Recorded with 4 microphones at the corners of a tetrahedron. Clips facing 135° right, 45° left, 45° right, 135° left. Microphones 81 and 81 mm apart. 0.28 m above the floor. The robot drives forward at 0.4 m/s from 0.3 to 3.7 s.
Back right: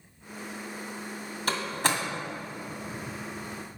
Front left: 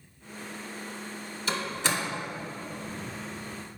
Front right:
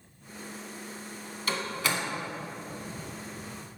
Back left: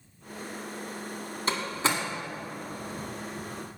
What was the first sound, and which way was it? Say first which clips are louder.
A door slam: back right 2 dB, back left 2 dB; 170° right.